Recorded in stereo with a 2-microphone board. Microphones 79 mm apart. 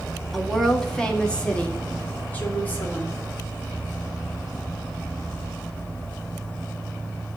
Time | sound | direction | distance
0.3 | a woman speaking | centre (ahead or behind) | 1.4 m